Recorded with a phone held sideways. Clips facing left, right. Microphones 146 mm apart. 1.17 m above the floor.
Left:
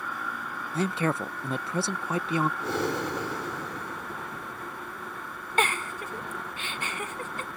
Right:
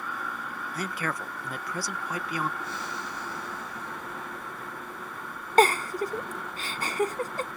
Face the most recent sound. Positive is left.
turn(degrees=-35)  # may be behind; listen again after turning